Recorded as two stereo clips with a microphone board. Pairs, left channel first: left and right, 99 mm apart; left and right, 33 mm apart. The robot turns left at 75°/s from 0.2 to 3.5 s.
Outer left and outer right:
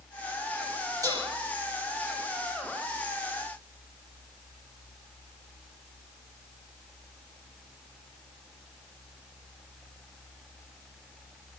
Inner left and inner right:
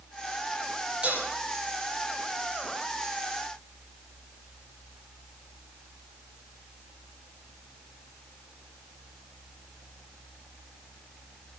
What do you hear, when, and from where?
1.0 s dishes clattering: 35° right (ahead or behind), 5.5 m; by 1.3 s 50° right (ahead or behind), 5.5 m